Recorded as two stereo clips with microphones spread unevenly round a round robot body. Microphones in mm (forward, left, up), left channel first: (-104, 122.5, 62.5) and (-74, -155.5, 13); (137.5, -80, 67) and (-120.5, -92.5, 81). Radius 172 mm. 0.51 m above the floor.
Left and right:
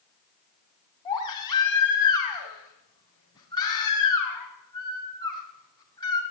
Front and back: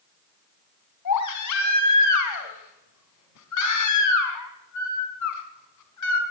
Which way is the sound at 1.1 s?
15° left.